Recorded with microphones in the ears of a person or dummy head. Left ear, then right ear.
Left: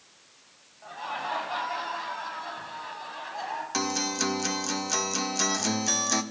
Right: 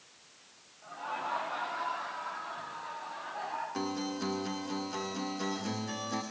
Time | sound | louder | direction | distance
0.8 | laughter | left 4 dB | 75° left (ahead or behind) | 9.5 m
3.7 | a guitar | left 8 dB | 70° left (ahead or behind) | 1.8 m